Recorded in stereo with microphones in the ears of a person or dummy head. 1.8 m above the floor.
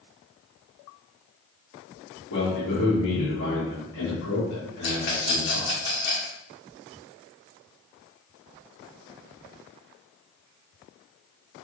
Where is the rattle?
55° left (ahead or behind), 1.7 m.